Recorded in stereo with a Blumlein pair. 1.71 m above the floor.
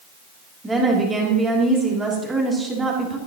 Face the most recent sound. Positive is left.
turn(degrees=-10)